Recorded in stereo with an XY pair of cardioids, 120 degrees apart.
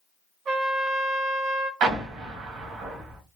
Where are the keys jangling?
No keys jangling in this recording.